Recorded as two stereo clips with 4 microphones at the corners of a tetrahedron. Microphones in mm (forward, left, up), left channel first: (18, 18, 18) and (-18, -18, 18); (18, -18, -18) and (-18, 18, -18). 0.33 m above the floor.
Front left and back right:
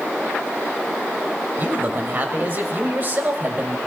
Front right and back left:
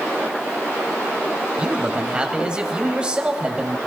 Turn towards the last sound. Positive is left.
turn(degrees=-165)